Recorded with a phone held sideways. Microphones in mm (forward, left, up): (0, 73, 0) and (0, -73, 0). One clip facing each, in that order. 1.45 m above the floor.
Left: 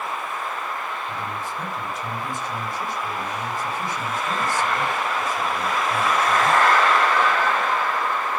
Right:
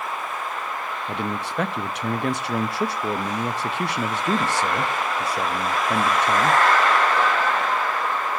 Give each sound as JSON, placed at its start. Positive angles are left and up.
{"t": 1.1, "sound": "a man speaking", "side_deg": -75, "distance_m": 0.6}